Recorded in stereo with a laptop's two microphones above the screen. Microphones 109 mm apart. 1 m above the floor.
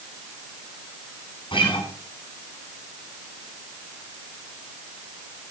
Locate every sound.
1.5 s a guitar: 50° left (ahead or behind), 7.5 m